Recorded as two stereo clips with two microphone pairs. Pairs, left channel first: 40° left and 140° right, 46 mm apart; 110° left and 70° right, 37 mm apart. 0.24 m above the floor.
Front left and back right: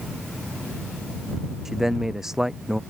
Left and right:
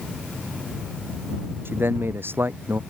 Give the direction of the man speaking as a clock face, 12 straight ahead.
2 o'clock.